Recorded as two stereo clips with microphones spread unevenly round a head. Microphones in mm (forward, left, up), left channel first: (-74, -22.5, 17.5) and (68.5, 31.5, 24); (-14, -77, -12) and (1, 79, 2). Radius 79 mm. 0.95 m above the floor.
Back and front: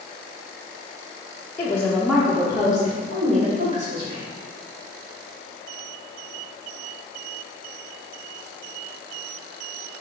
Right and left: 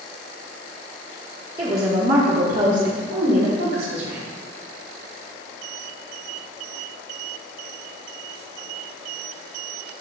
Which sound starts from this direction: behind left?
A woman speaking, at 1.6 s.